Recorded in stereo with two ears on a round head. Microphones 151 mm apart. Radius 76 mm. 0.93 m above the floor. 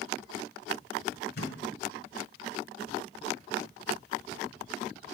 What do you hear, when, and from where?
1.4 s a thud: 65° left (ahead or behind), 1.4 m